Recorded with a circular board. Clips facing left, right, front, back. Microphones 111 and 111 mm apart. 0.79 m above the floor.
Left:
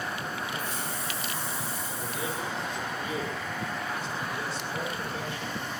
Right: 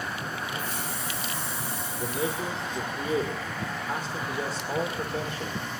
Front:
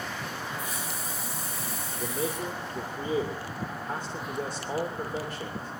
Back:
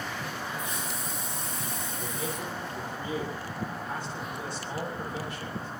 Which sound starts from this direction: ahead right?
A man speaking, at 2.0 s.